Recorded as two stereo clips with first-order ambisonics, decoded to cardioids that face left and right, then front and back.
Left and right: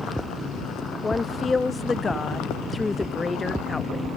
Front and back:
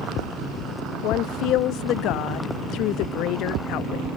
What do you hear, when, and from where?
1.0 s a woman speaking: 15° left, 0.5 m